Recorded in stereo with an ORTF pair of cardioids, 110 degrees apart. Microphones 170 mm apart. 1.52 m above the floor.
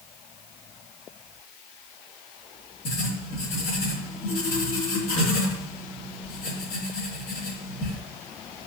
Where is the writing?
70° left, 3 m.